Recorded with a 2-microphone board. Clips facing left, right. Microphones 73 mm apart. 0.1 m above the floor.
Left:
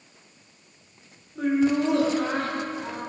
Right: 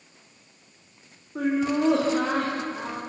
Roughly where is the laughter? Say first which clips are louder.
Left 2 dB; right.